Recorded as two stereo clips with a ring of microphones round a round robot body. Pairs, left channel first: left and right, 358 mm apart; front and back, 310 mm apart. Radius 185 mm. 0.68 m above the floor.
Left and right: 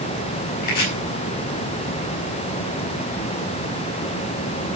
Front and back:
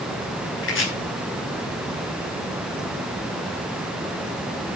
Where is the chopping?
50° left, 6 m.